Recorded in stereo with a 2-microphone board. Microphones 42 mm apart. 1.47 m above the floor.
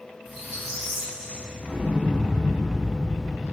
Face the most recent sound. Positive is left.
turn(degrees=-30)  # may be behind; listen again after turning